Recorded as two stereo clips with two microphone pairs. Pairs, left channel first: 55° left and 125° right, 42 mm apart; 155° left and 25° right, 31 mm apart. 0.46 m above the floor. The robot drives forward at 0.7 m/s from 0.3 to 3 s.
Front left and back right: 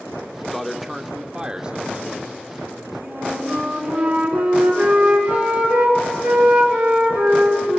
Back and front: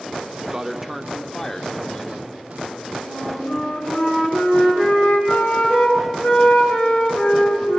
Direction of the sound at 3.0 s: 155° left.